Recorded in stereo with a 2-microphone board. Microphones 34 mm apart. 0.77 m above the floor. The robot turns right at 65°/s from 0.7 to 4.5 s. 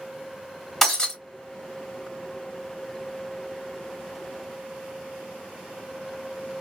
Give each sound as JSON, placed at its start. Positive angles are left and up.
{"t": 0.8, "sound": "breaking glass", "side_deg": 10, "distance_m": 1.6}